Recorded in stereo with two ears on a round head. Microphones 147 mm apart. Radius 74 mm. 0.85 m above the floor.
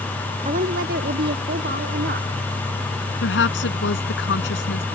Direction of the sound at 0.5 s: 45° right (ahead or behind).